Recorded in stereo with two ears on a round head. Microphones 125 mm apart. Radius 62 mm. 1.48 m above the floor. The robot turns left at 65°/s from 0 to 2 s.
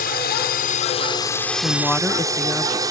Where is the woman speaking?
25° left (ahead or behind); by 2.8 s centre (ahead or behind).